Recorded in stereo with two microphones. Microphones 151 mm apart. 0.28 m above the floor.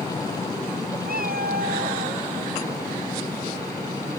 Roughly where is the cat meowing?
Right.